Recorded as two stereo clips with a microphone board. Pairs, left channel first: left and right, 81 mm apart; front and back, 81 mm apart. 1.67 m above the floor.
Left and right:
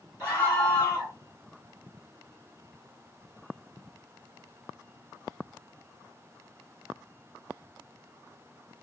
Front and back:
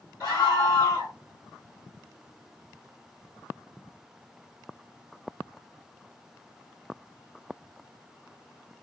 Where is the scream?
30° left, 2.0 m.